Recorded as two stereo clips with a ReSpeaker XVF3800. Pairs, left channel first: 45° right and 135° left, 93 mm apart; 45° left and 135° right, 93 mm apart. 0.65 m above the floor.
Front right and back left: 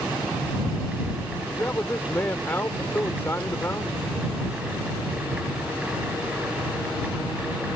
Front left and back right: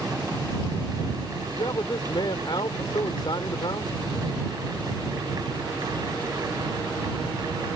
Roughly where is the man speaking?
Ahead.